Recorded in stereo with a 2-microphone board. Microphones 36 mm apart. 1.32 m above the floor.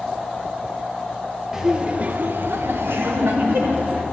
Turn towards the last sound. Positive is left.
turn(degrees=-65)  # may be behind; listen again after turning